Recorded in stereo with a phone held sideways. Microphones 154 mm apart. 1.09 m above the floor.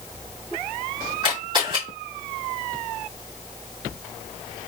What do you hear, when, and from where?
1.2 s a camera shutter: 35° right (ahead or behind), 2.5 m